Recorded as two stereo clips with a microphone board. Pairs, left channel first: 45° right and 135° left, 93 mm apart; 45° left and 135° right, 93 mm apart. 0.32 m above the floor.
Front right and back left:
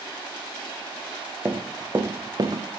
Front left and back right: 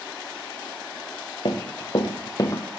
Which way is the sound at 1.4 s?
60° left.